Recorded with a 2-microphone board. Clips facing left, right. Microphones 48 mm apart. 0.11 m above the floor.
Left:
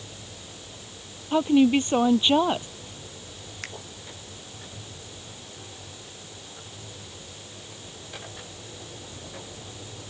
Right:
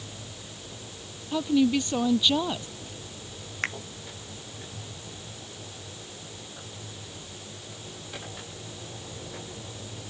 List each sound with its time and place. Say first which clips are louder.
1.3 s a woman speaking: left 4 dB; 30° left (ahead or behind)
3.6 s a finger snap: right 9 dB; 40° right (ahead or behind)